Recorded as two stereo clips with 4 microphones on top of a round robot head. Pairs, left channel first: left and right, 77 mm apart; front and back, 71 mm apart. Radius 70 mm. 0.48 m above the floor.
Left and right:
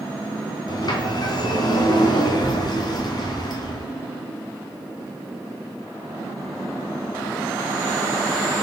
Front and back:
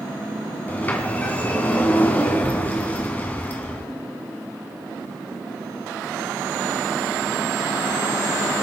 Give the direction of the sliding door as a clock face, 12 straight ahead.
10 o'clock.